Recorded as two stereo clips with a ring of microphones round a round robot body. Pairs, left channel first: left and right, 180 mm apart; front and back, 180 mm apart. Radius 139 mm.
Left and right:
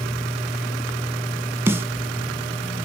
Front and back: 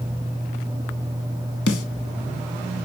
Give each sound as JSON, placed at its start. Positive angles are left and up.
{"t": 1.7, "sound": "a snare drum", "azimuth_deg": -15, "distance_m": 1.2}